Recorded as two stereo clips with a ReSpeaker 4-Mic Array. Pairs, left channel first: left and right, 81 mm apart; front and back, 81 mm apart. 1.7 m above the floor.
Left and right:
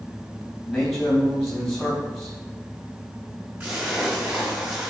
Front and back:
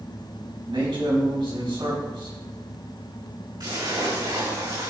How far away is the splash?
About 4 m.